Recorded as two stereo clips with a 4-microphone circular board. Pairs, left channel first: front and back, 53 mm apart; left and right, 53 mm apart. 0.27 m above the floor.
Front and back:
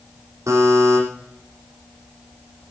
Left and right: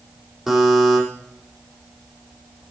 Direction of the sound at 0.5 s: Straight behind.